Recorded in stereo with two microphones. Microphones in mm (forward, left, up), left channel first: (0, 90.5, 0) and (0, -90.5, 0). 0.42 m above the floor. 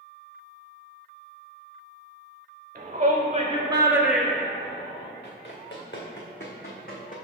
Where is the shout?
50° right (ahead or behind), 1.2 m; by 5.1 s 35° left (ahead or behind), 1.0 m.